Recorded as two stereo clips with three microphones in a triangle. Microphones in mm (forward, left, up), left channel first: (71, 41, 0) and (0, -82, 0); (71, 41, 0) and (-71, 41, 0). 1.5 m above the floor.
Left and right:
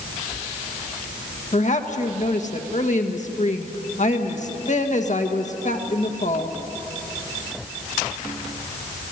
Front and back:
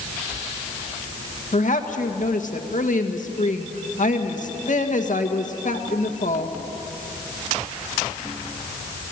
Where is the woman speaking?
30° left, 2.0 m.